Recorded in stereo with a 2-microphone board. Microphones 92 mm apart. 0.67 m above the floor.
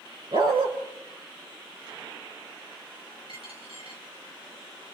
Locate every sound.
0.3 s a dog barking: 60° right (ahead or behind), 5.5 m
3.3 s a dropped coin: 85° right, 5 m